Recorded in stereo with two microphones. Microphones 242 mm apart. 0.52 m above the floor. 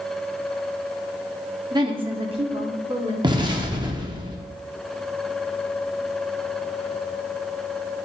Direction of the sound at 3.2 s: 20° right (ahead or behind).